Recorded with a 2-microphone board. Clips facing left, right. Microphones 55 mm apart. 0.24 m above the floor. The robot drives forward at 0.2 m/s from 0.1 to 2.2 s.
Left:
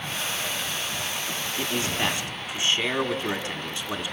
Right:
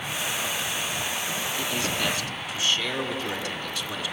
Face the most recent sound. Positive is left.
turn(degrees=30)  # may be behind; listen again after turning